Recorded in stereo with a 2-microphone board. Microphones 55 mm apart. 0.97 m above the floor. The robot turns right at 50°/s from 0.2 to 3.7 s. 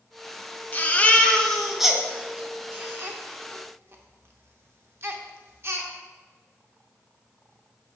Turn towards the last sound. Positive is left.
turn(degrees=-50)  # may be behind; listen again after turning